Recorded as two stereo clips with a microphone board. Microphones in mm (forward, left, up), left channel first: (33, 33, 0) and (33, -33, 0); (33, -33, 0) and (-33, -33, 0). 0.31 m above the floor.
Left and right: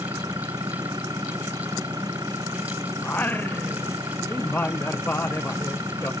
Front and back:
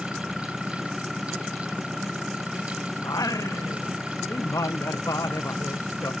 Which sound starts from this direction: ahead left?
Singing, at 3.0 s.